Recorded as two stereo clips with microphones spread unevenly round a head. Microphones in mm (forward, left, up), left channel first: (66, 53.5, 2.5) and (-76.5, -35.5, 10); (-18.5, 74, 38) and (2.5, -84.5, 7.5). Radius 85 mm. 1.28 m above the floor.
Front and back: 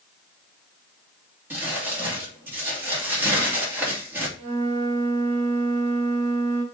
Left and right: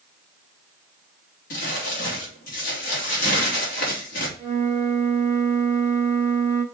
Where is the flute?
165° left, 3 m.